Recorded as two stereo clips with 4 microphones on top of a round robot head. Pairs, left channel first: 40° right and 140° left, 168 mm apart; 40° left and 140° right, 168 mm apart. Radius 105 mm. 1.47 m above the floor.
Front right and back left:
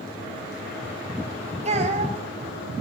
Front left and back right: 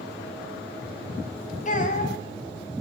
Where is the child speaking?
90° left, 8.5 m.